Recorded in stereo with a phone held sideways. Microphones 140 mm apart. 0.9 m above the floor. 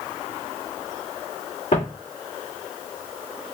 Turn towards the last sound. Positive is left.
turn(degrees=60)  # may be behind; listen again after turning